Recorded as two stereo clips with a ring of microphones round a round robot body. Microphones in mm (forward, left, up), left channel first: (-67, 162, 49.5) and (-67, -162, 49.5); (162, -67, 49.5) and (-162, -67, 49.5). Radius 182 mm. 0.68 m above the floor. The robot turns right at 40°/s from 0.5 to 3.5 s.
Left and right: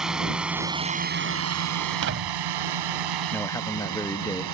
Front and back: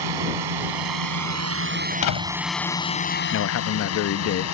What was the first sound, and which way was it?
A drone, straight behind.